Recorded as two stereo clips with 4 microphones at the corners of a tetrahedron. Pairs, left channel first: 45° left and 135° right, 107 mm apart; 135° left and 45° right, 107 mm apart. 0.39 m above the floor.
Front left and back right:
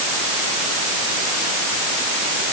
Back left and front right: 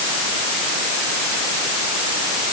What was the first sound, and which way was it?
Only background noise.